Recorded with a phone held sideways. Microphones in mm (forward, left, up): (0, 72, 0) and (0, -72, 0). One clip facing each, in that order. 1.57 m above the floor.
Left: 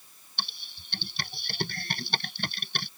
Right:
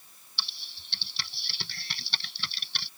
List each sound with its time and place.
0.4 s typing on a keyboard: 55° left (ahead or behind)